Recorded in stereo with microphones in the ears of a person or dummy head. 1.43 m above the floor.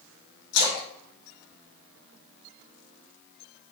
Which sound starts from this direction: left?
A splash, at 0.5 s.